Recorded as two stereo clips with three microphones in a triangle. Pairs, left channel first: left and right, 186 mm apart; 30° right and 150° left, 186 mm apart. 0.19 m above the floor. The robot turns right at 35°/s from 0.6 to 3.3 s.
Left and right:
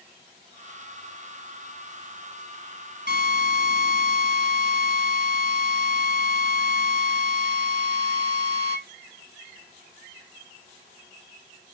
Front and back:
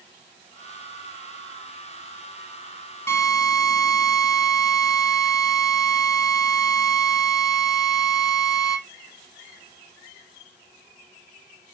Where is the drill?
105° right, 2 m; by 8.8 s 100° right, 2 m.